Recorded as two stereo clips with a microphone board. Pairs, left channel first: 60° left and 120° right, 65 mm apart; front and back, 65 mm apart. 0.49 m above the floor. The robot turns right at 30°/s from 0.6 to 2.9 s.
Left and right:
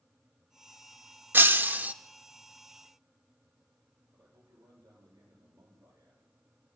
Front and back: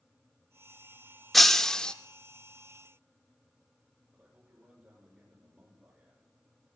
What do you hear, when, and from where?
1.3 s breaking glass: 85° right, 0.6 m; by 1.9 s 70° right, 0.6 m
4.1 s a man speaking: 100° right, 9 m